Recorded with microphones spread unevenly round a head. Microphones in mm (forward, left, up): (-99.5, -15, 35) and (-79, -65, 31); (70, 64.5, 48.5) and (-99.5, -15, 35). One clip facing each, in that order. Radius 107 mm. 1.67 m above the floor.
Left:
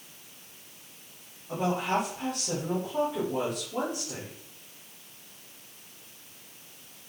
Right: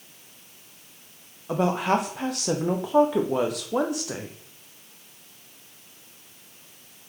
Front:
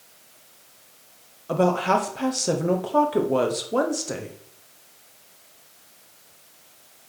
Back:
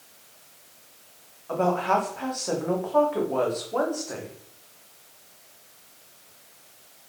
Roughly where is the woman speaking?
Ahead right.